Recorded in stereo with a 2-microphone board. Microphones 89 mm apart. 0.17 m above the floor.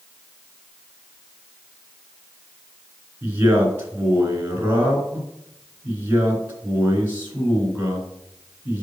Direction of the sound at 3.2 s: 25° right (ahead or behind).